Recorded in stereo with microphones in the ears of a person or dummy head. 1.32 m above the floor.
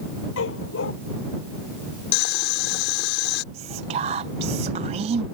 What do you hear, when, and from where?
0.4 s a dog barking: 80° left
2.1 s boiling: 65° left (ahead or behind)
3.5 s whispering: 35° right (ahead or behind)